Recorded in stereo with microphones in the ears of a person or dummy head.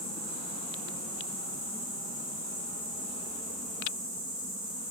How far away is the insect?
About 2 m.